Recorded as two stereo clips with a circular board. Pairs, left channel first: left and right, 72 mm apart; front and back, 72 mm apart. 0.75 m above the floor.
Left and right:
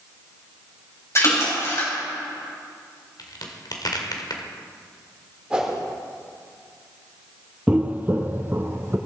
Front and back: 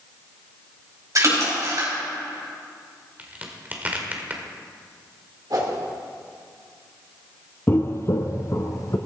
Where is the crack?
115° left, 1.8 m.